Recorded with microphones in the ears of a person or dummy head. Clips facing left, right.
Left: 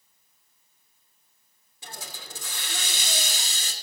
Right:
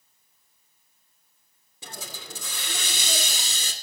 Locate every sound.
1.8 s a hiss: 65° right (ahead or behind), 2.5 m